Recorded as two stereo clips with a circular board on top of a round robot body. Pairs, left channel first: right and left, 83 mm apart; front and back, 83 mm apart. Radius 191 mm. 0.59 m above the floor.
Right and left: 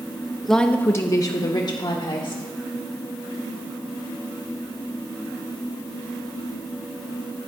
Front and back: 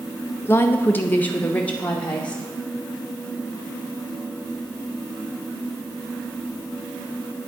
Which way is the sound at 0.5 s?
Straight ahead.